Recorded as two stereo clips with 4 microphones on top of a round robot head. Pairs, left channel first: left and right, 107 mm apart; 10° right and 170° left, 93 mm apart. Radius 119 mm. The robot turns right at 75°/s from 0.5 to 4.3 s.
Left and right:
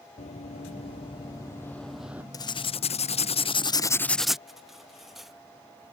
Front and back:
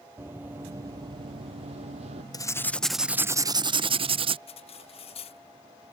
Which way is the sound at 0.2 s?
105° left.